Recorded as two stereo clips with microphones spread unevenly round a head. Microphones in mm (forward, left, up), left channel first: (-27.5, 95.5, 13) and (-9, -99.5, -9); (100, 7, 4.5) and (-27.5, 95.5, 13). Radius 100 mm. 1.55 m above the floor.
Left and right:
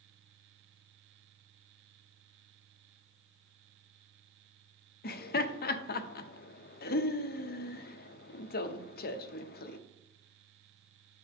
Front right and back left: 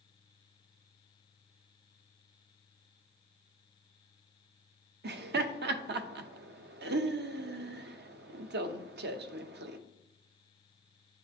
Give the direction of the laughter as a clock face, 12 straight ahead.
7 o'clock.